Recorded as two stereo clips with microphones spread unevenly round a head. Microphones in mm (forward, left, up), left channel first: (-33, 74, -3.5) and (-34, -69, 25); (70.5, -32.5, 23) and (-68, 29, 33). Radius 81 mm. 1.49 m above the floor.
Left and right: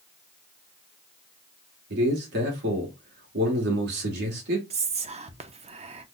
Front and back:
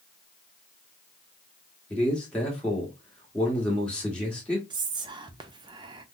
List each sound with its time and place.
1.9 s a man speaking: 105° right, 1.1 m
4.7 s whispering: 140° right, 0.6 m